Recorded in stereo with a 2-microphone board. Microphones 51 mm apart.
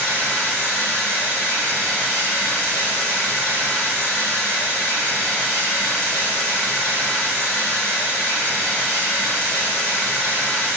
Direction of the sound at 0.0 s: 25° left (ahead or behind).